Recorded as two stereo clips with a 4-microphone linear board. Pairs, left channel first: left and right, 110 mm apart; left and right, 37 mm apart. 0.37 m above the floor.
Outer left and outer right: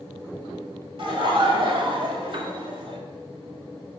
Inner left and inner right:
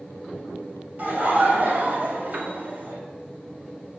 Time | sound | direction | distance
1.0 | laughter | 50° right (ahead or behind) | 1.8 m
2.3 | a piano | 50° right (ahead or behind) | 1.5 m